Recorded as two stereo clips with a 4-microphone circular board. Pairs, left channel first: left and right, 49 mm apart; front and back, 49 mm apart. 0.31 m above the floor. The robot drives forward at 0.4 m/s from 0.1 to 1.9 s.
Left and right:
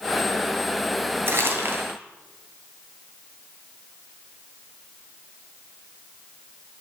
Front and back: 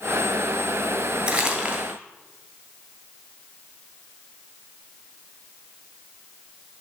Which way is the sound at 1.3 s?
120° right.